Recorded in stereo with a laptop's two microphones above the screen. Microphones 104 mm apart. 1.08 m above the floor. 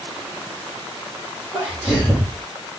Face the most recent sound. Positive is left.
turn(degrees=-25)  # may be behind; listen again after turning